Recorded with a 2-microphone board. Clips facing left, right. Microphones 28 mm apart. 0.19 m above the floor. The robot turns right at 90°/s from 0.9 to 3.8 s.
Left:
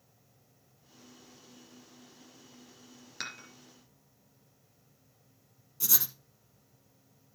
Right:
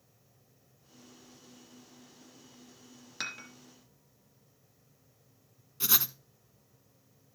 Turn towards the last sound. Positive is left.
turn(degrees=-40)  # may be behind; listen again after turning